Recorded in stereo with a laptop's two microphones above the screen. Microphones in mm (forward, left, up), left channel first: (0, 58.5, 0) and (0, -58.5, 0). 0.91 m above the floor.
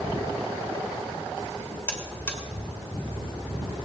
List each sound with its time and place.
1.9 s a buzzer: 20° left (ahead or behind), 2.5 m